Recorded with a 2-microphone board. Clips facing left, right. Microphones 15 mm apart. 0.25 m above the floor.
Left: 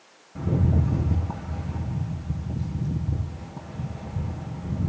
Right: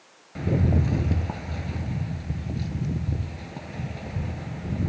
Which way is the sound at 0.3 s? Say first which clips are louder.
Right 1 dB; 75° right (ahead or behind).